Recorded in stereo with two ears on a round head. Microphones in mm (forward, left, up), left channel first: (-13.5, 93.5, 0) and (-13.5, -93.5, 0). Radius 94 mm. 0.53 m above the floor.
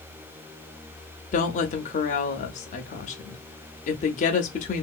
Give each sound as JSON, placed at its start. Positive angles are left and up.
{"t": 1.3, "sound": "a woman speaking", "side_deg": 35, "distance_m": 0.7}